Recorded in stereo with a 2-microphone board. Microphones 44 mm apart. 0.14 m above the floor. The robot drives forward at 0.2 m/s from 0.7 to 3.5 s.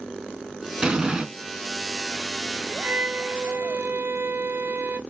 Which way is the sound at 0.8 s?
20° right (ahead or behind).